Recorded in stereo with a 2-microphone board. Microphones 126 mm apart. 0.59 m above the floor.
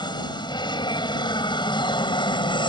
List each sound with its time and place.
0.0 s an aircraft: 35° left (ahead or behind); by 2.7 s 40° left (ahead or behind)